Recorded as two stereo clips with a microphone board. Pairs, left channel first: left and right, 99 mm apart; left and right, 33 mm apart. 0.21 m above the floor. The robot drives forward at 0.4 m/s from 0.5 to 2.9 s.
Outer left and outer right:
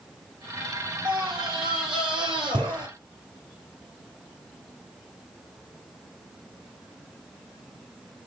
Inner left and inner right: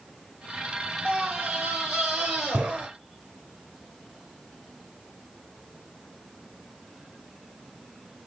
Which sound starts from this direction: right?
A scream, at 1.1 s.